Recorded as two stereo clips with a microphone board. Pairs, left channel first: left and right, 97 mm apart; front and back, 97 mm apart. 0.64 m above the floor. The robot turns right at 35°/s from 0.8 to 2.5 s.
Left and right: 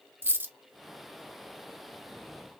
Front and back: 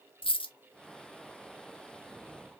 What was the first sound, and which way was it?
A dropped coin, 25° right.